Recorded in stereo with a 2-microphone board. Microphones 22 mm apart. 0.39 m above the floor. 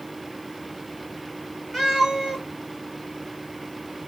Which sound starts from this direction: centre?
A cat meowing, at 1.7 s.